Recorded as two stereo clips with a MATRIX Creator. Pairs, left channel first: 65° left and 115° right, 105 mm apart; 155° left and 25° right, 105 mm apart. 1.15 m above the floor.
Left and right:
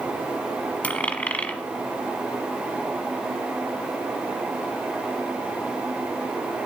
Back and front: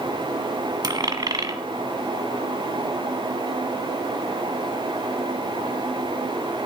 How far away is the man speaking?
No man speaking in this recording.